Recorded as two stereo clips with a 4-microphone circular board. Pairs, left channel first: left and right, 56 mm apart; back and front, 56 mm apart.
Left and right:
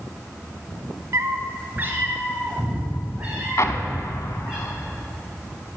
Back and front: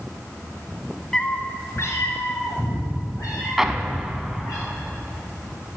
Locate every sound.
1.1 s a cat meowing: 100° right, 0.7 m; by 4.6 s 165° right, 5.5 m
3.6 s an explosion: 80° left, 0.7 m